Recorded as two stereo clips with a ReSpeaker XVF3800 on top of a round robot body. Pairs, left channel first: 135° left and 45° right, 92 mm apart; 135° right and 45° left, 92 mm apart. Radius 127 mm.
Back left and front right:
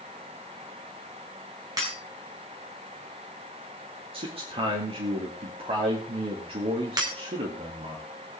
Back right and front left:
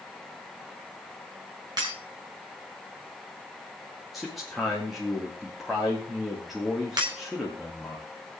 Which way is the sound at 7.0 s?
5° left.